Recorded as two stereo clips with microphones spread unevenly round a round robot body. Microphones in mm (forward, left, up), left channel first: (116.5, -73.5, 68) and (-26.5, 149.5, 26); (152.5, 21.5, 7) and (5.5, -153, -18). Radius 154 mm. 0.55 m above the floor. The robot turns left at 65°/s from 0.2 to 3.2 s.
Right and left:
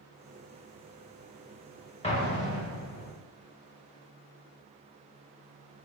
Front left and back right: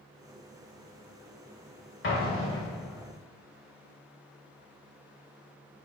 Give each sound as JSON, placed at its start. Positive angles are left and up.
{"t": 2.0, "sound": "an explosion", "azimuth_deg": 10, "distance_m": 2.0}